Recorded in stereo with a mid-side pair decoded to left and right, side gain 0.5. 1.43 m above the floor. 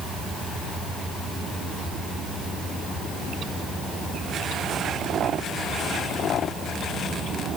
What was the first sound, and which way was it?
Only background noise.